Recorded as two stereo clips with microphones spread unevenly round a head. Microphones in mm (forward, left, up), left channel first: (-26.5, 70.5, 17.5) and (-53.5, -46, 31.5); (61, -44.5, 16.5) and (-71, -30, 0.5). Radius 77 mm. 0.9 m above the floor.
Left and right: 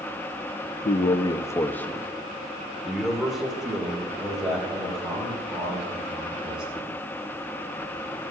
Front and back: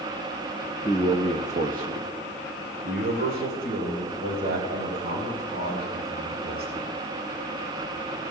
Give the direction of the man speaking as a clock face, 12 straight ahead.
9 o'clock.